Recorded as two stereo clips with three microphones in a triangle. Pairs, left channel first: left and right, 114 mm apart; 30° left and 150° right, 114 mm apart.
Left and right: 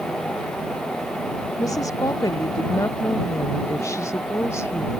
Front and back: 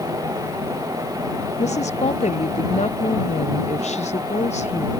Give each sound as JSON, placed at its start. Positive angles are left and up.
{"t": 1.6, "sound": "a woman speaking", "azimuth_deg": 30}